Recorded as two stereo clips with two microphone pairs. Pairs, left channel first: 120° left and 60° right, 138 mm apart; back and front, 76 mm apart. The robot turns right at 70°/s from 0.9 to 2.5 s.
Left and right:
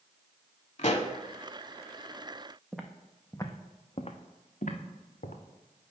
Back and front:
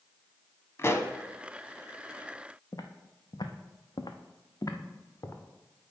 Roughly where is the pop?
Behind left.